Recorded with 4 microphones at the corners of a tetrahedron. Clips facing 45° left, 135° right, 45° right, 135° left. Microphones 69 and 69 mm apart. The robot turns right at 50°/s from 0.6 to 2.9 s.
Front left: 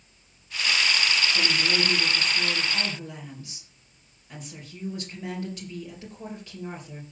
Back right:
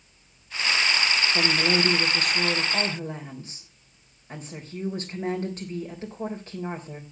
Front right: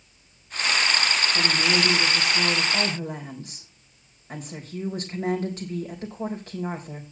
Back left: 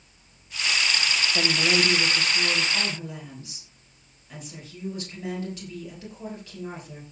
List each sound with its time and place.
1.3 s a woman speaking: 170° right, 3.5 m; by 7.0 s 90° right, 3.5 m